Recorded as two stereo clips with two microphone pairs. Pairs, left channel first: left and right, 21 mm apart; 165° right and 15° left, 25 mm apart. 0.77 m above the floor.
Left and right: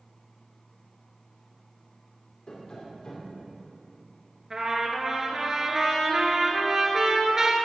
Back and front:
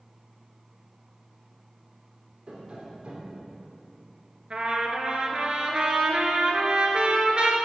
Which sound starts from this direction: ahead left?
Tapping, at 2.5 s.